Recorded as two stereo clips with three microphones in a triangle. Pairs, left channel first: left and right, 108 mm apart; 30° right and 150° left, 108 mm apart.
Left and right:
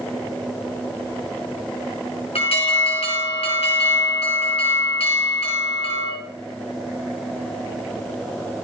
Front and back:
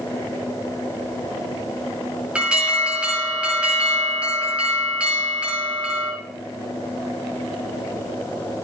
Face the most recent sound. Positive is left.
turn(degrees=70)